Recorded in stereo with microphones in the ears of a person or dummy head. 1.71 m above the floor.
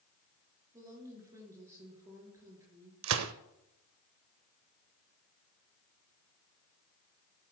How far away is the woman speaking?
About 4 m.